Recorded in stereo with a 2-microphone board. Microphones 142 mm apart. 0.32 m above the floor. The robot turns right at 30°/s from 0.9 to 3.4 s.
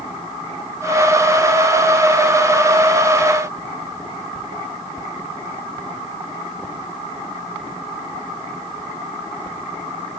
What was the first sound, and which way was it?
Only background noise.